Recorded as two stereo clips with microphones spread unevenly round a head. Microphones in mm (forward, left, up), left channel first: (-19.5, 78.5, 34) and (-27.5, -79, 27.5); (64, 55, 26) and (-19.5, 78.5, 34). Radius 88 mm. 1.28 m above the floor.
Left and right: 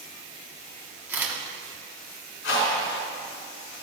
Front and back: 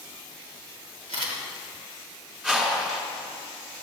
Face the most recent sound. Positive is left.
turn(degrees=85)